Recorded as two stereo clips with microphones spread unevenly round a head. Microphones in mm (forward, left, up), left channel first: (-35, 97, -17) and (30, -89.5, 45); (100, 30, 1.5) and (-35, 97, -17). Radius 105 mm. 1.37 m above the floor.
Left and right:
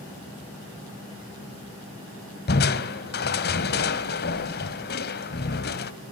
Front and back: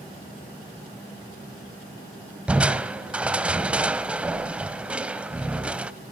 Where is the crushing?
70° left, 1.5 m.